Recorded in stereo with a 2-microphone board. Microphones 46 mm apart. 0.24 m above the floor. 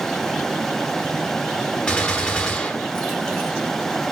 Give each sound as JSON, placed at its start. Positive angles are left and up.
{"t": 1.9, "sound": "a gunshot", "side_deg": 20, "distance_m": 1.0}